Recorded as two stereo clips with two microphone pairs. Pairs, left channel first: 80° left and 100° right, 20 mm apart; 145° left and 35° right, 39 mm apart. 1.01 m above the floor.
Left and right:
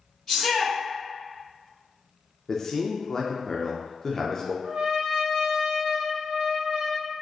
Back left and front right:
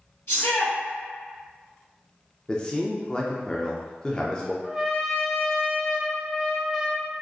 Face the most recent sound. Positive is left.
turn(degrees=-110)